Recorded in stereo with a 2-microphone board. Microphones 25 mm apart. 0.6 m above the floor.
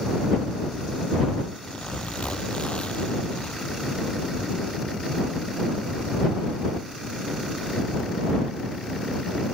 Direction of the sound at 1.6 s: 55° left (ahead or behind).